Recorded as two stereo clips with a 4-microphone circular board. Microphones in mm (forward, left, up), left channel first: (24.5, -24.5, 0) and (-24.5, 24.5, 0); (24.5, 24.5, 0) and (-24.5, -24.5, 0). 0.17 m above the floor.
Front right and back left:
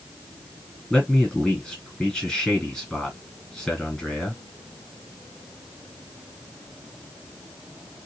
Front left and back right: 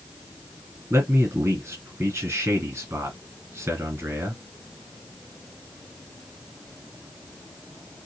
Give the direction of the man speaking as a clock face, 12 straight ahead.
4 o'clock.